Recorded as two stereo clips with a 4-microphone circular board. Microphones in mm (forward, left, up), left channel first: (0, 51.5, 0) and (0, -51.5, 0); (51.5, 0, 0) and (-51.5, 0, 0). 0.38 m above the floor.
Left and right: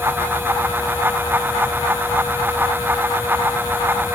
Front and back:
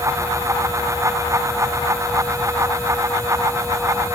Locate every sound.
Only background noise.